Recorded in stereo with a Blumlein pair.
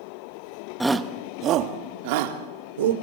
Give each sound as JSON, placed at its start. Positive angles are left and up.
{"t": 0.8, "sound": "a shout", "azimuth_deg": 0, "distance_m": 1.5}